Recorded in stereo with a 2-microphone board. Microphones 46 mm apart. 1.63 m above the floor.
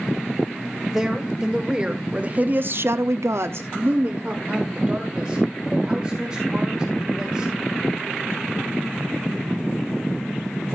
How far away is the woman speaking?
About 2 m.